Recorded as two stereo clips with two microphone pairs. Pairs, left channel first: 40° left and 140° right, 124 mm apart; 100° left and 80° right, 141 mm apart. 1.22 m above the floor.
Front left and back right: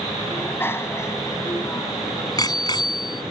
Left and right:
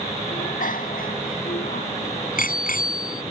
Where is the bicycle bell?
115° left; by 3.2 s 95° left.